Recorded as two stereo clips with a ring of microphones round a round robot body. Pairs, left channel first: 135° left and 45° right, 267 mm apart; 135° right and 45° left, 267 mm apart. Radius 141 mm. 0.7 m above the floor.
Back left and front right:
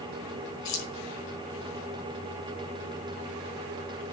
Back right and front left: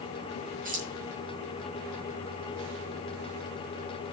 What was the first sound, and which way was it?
Keys jangling, 105° left.